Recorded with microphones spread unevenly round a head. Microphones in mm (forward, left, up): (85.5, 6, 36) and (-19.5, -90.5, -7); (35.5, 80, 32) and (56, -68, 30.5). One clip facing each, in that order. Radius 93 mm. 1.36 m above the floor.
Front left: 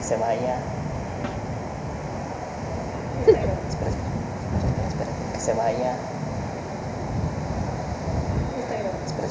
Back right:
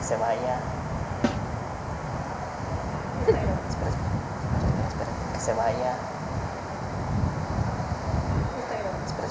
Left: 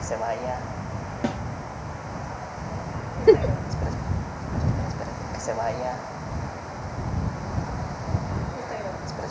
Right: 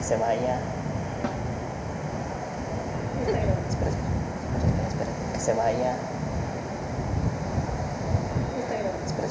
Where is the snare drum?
165° left.